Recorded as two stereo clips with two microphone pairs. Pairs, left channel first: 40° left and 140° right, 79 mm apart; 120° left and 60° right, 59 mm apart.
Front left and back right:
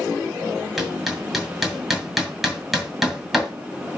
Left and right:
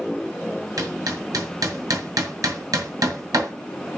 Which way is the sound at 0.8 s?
50° right.